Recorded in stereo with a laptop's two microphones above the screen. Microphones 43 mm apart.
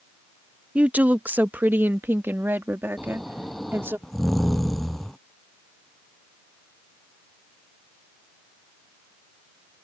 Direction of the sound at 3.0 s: 5° left (ahead or behind).